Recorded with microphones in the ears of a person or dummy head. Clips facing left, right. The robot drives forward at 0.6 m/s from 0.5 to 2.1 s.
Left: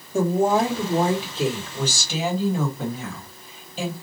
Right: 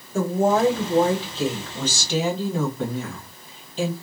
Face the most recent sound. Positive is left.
turn(degrees=5)  # may be behind; listen again after turning